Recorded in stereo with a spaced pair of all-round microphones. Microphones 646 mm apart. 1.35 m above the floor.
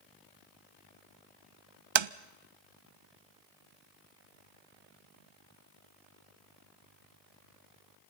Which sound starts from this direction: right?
Tapping, at 1.9 s.